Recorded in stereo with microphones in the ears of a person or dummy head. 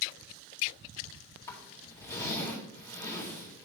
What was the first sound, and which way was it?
A zipper, 15° left (ahead or behind).